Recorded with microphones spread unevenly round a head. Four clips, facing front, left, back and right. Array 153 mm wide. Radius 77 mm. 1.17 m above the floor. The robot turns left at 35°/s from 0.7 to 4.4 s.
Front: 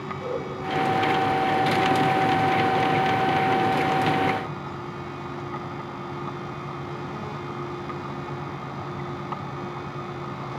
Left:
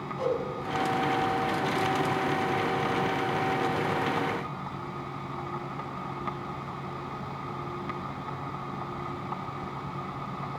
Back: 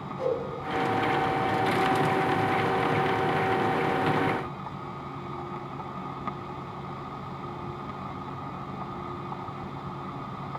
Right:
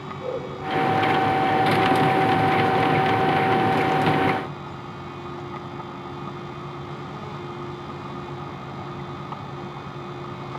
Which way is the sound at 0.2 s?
125° left.